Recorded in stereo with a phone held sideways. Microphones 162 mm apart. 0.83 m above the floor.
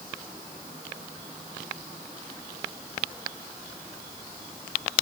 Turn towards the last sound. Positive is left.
No sound to turn to.